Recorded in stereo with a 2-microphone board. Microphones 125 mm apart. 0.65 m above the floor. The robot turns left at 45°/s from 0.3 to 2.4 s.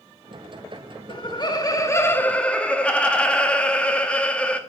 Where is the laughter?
75° left, 1.0 m; by 4.6 s 15° left, 1.0 m.